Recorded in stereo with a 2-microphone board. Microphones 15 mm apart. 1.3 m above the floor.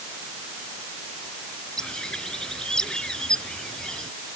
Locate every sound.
1.8 s a bird: 50° left (ahead or behind)